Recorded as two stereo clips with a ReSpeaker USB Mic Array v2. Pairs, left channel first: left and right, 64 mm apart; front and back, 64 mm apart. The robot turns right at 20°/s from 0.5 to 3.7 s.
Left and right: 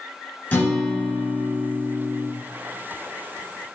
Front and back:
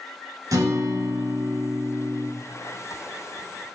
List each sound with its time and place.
0.5 s a guitar: 150° left, 0.8 m; by 2.3 s 175° right, 0.8 m